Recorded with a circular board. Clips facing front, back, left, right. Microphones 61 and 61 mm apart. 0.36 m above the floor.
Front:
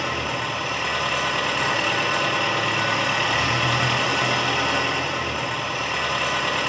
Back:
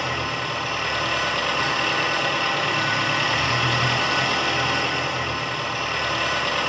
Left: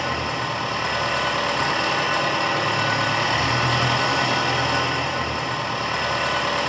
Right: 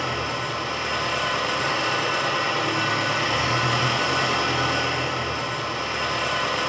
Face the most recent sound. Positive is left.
turn(degrees=80)